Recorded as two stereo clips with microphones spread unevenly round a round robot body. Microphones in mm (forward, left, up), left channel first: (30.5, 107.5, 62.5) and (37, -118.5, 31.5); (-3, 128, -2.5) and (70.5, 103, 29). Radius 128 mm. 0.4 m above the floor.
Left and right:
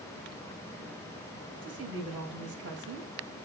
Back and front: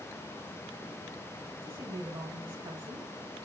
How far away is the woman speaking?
About 3 m.